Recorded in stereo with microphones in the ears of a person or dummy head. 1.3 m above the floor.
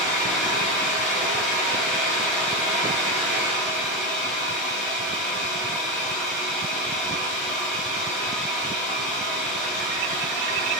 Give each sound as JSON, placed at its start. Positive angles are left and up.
{"t": 0.0, "sound": "a fan", "side_deg": 5, "distance_m": 1.6}